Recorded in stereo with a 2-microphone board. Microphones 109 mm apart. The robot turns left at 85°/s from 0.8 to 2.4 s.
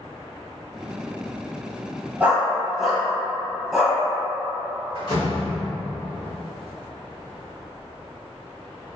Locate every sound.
2.2 s a dog barking: 15° right (ahead or behind), 0.9 m; by 4.0 s centre (ahead or behind), 0.9 m
5.0 s a door slam: 55° left (ahead or behind), 1.3 m